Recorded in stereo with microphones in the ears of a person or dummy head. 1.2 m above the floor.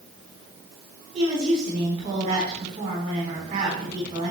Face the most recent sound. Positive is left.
turn(degrees=-30)  # may be behind; listen again after turning